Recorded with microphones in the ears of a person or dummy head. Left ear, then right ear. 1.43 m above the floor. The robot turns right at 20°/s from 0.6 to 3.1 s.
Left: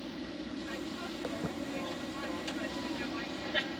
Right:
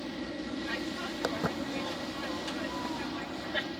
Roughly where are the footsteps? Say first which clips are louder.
Right 7 dB; right.